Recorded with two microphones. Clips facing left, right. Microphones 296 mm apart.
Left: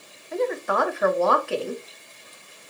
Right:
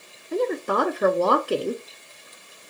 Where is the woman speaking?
45° right (ahead or behind), 0.8 m.